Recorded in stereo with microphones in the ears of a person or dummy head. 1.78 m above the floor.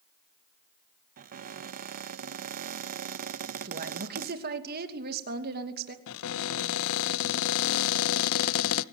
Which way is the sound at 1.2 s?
45° right (ahead or behind).